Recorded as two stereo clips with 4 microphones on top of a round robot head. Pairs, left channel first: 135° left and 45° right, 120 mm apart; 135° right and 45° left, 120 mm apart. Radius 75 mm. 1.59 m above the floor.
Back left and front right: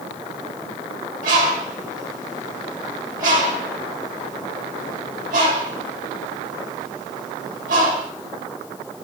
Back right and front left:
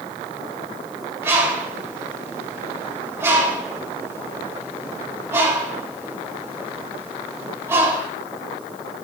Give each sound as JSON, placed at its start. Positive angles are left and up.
{"t": 1.2, "sound": "a bird", "azimuth_deg": -25, "distance_m": 3.5}